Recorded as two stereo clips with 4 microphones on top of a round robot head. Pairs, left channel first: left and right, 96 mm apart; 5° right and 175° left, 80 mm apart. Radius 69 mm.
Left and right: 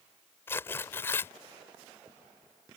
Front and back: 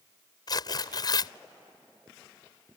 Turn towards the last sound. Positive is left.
turn(degrees=20)